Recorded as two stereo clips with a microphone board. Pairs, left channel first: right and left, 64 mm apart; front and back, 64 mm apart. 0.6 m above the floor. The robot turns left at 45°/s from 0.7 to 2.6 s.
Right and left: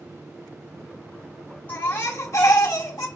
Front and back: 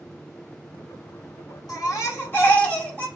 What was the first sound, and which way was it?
A baby crying, 25° right.